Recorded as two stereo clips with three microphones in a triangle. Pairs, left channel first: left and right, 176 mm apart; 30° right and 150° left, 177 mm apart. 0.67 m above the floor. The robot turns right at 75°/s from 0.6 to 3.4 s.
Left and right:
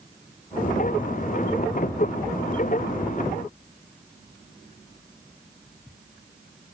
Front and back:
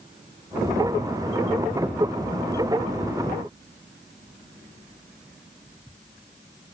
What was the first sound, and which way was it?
Only background noise.